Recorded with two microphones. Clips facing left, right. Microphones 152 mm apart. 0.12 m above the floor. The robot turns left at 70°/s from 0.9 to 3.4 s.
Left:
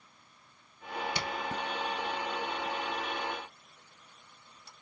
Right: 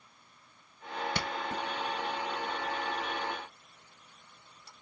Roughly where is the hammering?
Right.